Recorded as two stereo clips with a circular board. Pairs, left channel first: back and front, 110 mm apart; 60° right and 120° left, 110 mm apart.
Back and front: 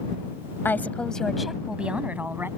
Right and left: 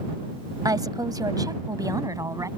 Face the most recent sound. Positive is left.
turn(degrees=65)